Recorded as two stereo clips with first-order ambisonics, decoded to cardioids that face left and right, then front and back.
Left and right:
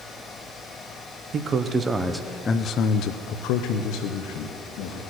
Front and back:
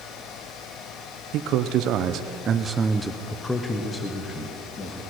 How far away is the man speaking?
About 0.9 m.